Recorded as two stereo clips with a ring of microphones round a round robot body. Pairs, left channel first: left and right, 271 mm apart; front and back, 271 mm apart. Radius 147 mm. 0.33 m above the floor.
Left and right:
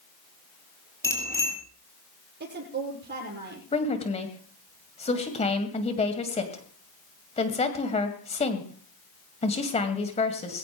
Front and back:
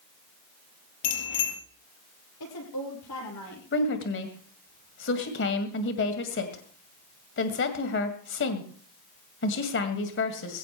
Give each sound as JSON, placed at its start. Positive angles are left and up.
{"t": 1.0, "sound": "a bicycle bell", "azimuth_deg": 10, "distance_m": 6.5}
{"t": 2.4, "sound": "a woman speaking", "azimuth_deg": -40, "distance_m": 8.5}
{"t": 3.7, "sound": "a woman speaking", "azimuth_deg": 30, "distance_m": 2.0}